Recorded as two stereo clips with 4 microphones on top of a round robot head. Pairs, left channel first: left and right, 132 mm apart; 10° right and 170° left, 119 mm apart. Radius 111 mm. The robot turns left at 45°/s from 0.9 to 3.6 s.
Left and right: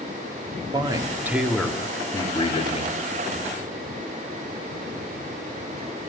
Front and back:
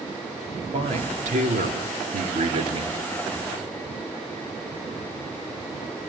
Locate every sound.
0.7 s a man speaking: 150° right, 3 m; by 2.9 s 120° left, 3 m